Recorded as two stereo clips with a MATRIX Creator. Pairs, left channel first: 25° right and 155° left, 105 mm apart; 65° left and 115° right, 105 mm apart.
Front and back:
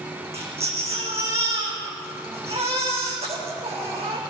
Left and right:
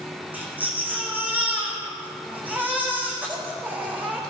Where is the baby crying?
175° left, 4 m.